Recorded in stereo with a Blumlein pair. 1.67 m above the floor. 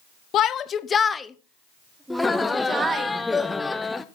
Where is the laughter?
5° left, 0.8 m.